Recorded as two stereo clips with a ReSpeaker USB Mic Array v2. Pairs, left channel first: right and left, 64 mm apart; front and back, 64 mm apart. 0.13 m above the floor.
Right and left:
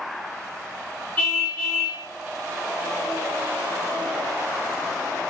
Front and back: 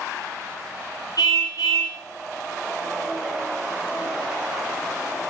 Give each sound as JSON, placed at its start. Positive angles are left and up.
{"t": 1.2, "sound": "a car horn", "azimuth_deg": -25, "distance_m": 8.0}